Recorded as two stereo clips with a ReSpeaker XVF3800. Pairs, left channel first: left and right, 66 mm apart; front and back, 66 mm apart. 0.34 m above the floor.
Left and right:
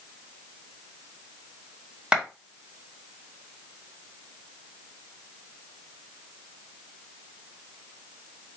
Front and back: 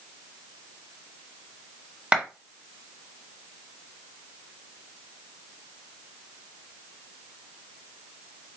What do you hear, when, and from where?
2.1 s a clap: 140° right, 1.0 m